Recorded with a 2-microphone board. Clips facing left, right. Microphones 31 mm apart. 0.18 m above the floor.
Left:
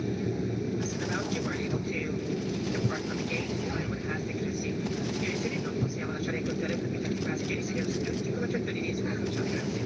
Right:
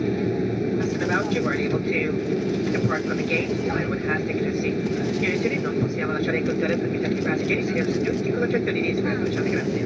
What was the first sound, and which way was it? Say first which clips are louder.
An aircraft: right 8 dB; 40° right (ahead or behind).